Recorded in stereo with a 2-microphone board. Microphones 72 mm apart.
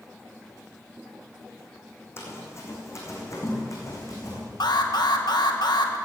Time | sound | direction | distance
2.2 | running footsteps | 35° left (ahead or behind) | 3.5 m
4.6 | an alarm | 70° left (ahead or behind) | 1.1 m